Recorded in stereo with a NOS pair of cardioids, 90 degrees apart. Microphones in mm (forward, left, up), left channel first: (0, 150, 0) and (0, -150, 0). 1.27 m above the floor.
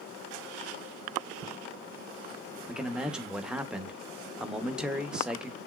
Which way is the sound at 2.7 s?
5° right.